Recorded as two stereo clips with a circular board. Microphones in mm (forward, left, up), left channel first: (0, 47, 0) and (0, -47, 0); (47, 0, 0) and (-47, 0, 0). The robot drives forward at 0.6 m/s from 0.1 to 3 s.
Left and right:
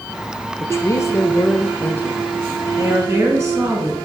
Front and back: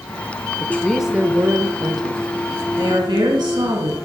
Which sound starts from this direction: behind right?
A woman speaking, at 2.8 s.